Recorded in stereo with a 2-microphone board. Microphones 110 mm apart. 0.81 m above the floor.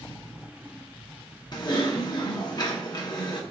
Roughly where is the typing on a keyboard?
Left.